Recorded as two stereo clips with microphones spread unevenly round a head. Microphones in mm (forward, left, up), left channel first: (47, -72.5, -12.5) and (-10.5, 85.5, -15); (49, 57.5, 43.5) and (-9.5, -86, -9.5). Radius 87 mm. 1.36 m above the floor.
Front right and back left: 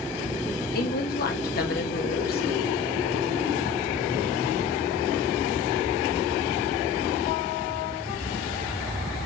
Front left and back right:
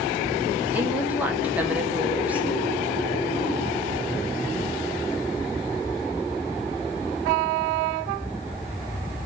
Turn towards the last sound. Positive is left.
turn(degrees=-40)